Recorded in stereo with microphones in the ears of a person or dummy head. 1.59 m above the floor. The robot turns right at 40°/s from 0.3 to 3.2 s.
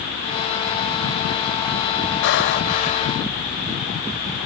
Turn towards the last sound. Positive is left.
turn(degrees=150)